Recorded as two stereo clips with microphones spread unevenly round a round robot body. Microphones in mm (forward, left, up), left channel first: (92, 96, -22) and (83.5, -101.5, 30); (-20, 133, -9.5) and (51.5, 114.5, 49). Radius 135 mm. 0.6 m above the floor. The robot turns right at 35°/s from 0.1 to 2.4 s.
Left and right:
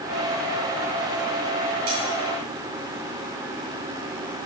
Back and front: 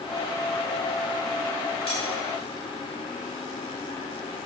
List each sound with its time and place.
1.9 s cutlery clinking: 150° right, 3 m; by 2.0 s 145° right, 3 m